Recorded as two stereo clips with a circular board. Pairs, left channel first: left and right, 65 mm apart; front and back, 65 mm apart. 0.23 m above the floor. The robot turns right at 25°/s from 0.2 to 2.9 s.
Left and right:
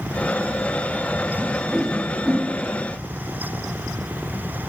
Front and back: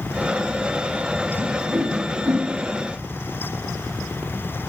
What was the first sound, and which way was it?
A whoosh, 165° left.